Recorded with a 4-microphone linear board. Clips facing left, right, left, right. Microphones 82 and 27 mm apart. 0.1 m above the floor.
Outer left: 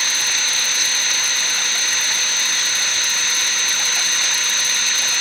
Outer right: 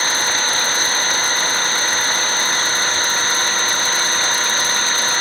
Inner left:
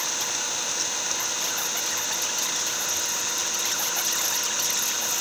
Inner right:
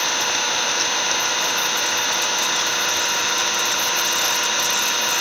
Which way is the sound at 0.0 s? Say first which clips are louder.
Outer right 6 dB, inner right 8 dB; 40° right (ahead or behind).